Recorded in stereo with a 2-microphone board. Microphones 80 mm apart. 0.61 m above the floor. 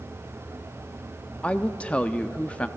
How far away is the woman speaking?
About 0.8 m.